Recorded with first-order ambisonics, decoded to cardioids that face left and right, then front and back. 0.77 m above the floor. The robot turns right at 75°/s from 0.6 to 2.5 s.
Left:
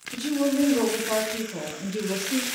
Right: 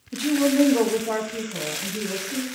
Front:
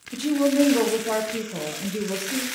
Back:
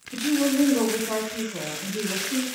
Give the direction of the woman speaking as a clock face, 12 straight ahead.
2 o'clock.